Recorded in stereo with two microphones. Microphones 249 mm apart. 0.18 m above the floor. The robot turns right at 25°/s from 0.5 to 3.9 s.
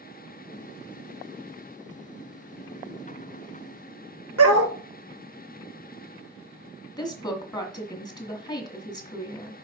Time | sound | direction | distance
4.4 | a dog barking | 80° right | 1.0 m
7.0 | a woman speaking | 15° left (ahead or behind) | 1.5 m